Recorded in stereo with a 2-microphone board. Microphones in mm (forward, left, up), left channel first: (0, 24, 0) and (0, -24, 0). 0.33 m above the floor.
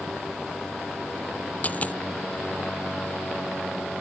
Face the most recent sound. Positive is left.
turn(degrees=35)  # may be behind; listen again after turning